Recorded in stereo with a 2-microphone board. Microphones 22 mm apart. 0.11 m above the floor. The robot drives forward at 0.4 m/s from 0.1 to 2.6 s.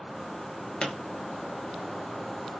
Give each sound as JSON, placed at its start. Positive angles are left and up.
{"t": 0.8, "sound": "a pop", "side_deg": 50, "distance_m": 0.5}